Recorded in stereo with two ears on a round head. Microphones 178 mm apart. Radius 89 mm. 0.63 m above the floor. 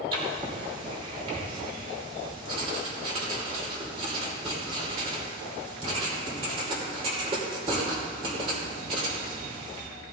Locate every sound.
0.1 s writing: 30° right (ahead or behind), 2.5 m